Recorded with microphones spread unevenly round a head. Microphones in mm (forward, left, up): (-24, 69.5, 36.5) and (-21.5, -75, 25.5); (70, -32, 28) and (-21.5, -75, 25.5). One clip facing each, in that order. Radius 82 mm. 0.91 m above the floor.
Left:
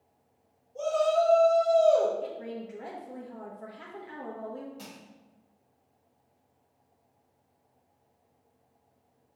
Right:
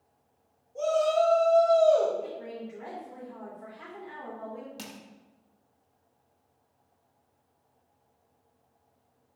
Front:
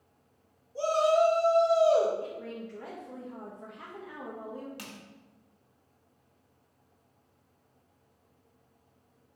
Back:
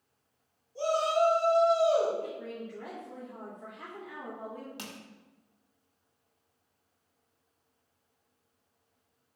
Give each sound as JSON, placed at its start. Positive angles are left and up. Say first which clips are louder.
{"t": 0.8, "sound": "a shout", "louder": "right 1 dB, front 3 dB", "azimuth_deg": -10, "distance_m": 1.6}
{"t": 2.2, "sound": "a woman speaking", "louder": "left 1 dB, even", "azimuth_deg": 65, "distance_m": 0.8}
{"t": 4.8, "sound": "crushing", "louder": "right 2 dB, back 1 dB", "azimuth_deg": -90, "distance_m": 0.8}